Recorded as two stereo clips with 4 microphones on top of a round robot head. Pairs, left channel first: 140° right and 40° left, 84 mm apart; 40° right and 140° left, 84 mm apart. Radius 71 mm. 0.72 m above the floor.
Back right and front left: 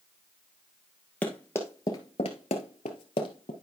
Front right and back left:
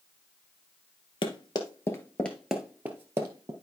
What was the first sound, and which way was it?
Running footsteps, 65° right.